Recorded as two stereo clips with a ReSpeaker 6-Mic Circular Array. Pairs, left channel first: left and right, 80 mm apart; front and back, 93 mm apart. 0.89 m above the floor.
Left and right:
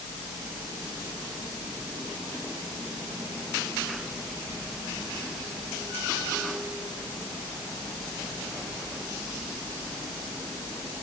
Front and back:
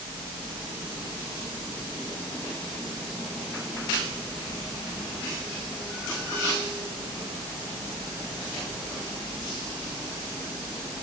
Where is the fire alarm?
I don't hear a fire alarm.